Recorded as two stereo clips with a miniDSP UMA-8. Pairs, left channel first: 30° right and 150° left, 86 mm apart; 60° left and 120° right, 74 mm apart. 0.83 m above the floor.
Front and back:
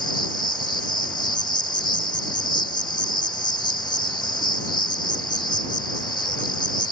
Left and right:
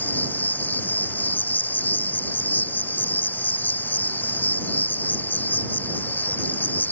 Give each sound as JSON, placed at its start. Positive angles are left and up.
{"t": 0.0, "sound": "an insect", "azimuth_deg": -5}